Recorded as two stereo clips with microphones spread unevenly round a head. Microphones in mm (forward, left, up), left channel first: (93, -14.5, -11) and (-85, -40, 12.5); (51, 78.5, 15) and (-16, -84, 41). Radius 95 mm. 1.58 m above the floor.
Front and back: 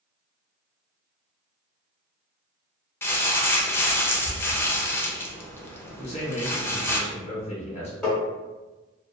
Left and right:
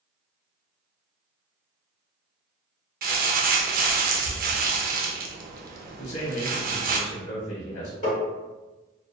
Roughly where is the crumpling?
Right.